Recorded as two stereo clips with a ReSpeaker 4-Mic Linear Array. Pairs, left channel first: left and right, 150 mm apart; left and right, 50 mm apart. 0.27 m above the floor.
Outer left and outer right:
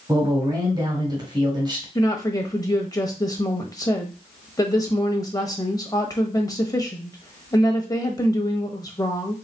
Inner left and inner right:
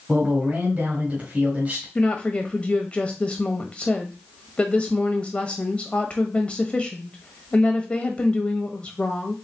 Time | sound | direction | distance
0.1 | a man speaking | 30° right (ahead or behind) | 1.6 m
1.9 | a woman speaking | 25° left (ahead or behind) | 1.0 m